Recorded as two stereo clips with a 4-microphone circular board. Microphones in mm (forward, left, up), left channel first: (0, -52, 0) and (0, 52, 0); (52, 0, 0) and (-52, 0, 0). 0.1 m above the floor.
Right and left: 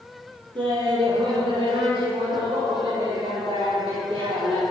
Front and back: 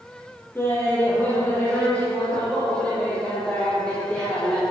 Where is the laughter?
65° left, 2.5 m; by 4.6 s 80° left, 5 m.